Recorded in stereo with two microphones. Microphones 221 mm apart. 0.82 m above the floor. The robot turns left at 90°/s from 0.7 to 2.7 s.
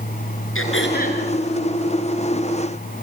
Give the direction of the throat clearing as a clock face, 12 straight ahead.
10 o'clock.